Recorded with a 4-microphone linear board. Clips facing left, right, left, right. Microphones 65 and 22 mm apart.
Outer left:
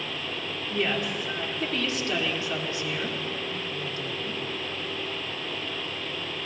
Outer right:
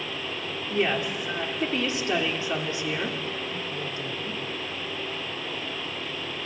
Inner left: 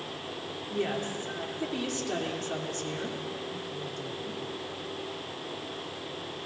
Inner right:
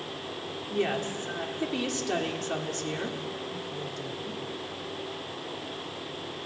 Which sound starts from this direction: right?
A woman speaking, at 0.7 s.